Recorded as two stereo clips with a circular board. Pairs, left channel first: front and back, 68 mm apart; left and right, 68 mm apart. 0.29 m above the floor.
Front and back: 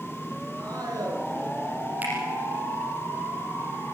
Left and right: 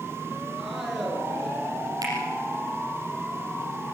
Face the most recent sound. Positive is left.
turn(degrees=-115)